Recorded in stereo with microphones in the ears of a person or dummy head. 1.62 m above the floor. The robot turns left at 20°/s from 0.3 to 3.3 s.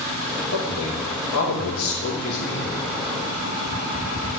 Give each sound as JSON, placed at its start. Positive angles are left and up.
{"t": 0.5, "sound": "a man speaking", "azimuth_deg": 100, "distance_m": 3.0}